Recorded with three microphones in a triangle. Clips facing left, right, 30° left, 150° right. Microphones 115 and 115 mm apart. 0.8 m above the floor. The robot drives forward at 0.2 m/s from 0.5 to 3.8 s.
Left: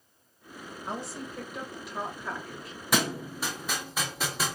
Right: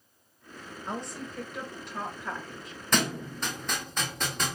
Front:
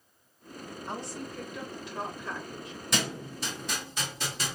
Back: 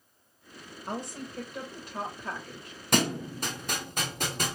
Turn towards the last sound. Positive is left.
turn(degrees=175)